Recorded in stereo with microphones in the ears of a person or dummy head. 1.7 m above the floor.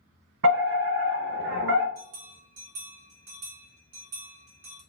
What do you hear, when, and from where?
0.4 s a fire alarm: 65° right (ahead or behind), 1.1 m
1.9 s a bell: 50° right (ahead or behind), 2 m